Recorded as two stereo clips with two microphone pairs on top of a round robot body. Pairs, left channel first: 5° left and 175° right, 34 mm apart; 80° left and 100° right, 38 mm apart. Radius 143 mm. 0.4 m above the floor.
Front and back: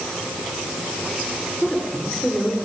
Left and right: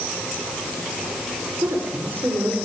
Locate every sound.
1.6 s a woman speaking: 75° right, 7.5 m